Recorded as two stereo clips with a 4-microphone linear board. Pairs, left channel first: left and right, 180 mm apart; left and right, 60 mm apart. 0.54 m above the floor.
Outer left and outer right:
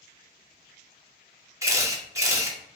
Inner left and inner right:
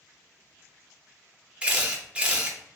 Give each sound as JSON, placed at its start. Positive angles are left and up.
{"t": 1.6, "sound": "a camera shutter", "side_deg": -15, "distance_m": 0.5}